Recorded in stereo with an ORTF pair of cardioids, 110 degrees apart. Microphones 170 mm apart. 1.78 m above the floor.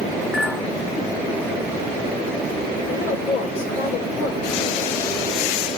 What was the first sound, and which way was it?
A clink, 10° left.